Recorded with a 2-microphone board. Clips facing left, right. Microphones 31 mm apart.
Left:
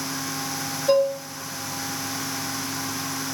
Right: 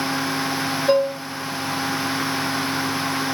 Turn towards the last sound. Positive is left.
turn(degrees=-10)  # may be behind; listen again after turning